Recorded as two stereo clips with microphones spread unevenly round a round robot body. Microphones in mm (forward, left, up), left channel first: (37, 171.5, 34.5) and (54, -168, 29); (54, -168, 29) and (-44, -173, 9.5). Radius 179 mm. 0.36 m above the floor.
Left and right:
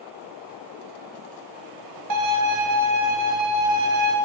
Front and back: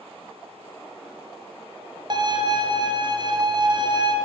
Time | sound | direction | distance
2.1 | a violin | 130° right | 1.1 m